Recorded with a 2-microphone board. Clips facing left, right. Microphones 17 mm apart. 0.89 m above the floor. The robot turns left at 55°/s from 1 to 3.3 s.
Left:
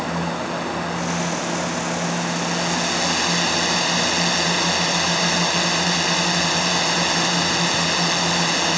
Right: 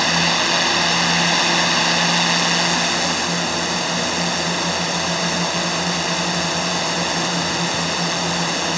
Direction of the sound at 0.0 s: 60° right.